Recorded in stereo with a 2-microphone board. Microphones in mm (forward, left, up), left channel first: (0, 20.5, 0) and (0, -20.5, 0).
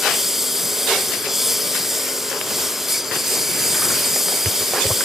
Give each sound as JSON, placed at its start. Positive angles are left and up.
{"t": 0.0, "sound": "a lawn mower", "side_deg": -10}